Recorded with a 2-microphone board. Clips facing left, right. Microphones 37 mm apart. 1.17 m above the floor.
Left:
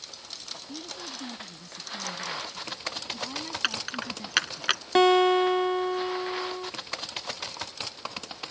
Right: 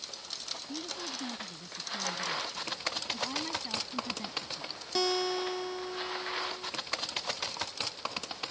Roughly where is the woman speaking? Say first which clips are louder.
Even; centre.